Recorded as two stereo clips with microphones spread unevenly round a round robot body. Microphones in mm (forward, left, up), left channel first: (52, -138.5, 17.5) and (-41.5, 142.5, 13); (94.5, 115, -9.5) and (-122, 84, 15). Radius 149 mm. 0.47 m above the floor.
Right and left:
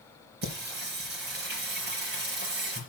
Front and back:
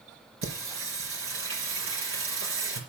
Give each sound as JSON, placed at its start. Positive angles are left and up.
{"t": 0.4, "sound": "singing", "azimuth_deg": 165, "distance_m": 4.0}